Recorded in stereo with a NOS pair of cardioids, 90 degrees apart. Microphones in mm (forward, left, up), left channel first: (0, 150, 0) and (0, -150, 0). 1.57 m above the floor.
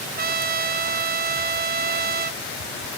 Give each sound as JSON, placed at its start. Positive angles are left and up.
{"t": 0.2, "sound": "a trumpet", "azimuth_deg": -30, "distance_m": 1.2}